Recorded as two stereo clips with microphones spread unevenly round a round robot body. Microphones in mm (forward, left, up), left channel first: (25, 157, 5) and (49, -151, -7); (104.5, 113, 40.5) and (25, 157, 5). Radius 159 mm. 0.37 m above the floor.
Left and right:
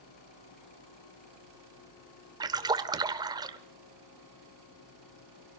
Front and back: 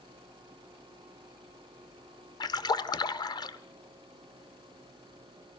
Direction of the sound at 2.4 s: 40° right.